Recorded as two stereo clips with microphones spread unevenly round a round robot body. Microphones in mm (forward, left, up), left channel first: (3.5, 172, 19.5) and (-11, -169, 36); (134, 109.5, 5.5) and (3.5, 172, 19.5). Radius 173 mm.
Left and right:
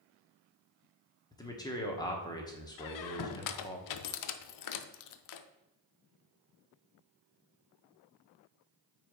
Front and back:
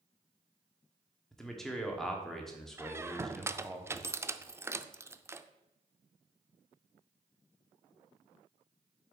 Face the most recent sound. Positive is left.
turn(degrees=80)